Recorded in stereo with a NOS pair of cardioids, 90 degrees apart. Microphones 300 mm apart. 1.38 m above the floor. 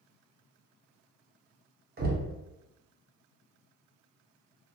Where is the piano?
No piano in this recording.